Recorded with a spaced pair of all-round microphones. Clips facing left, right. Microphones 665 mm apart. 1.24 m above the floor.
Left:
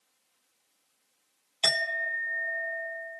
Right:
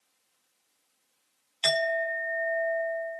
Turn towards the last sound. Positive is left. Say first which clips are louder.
# right 8 dB
turn(degrees=70)  # may be behind; listen again after turning